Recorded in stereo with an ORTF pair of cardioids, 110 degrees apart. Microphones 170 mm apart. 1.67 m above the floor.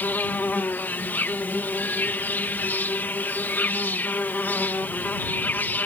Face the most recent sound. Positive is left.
turn(degrees=10)